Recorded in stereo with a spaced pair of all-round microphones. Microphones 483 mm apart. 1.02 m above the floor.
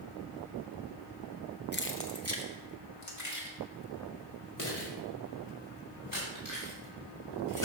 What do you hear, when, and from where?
1.7 s keys jangling: 20° left (ahead or behind), 0.6 m; by 7.7 s 40° left (ahead or behind), 4.5 m